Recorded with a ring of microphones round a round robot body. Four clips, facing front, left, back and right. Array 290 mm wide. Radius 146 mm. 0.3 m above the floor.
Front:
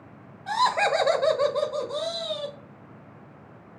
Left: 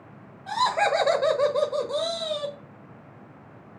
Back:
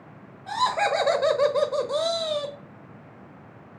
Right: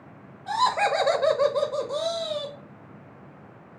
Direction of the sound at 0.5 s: Straight ahead.